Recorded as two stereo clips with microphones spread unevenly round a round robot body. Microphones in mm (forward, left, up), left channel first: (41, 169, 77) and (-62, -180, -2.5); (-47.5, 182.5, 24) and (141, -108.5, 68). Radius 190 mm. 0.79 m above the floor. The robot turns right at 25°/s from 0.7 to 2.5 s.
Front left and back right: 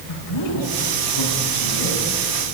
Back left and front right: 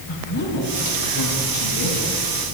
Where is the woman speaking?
60° left, 9.5 m; by 2.0 s 95° left, 9.5 m.